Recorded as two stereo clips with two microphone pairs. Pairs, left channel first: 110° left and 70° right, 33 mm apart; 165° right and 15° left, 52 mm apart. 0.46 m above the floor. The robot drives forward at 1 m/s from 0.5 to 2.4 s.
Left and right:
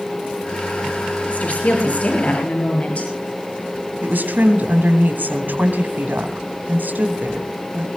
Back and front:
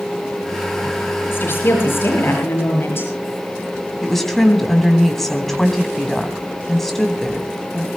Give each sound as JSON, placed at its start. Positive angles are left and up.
{"t": 1.3, "sound": "a woman speaking", "azimuth_deg": 150, "distance_m": 7.5}
{"t": 4.0, "sound": "a woman speaking", "azimuth_deg": -80, "distance_m": 3.5}